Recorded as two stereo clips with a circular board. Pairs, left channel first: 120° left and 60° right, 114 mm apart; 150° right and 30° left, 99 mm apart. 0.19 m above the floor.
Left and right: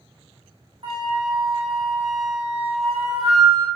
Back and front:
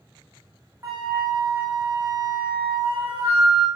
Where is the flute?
25° right, 2.5 m.